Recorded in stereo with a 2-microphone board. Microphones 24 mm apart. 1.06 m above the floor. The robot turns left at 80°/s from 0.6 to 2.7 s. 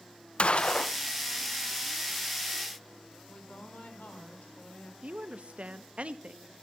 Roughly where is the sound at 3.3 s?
Left.